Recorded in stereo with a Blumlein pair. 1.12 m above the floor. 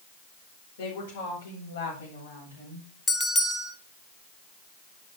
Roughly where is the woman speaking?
Ahead left.